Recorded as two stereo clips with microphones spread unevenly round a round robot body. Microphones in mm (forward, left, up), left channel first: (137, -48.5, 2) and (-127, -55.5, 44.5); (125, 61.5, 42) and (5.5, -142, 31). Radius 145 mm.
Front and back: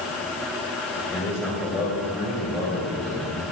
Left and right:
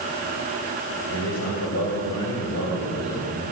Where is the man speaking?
85° left, 4.5 m; by 3.4 s 105° left, 5.5 m.